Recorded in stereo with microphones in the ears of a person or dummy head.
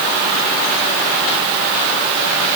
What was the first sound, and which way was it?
Only background noise.